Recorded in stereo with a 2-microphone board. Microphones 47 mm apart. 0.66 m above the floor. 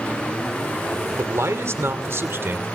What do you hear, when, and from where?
1.2 s a man speaking: 65° right (ahead or behind), 2 m; by 2.7 s 50° right (ahead or behind), 2.5 m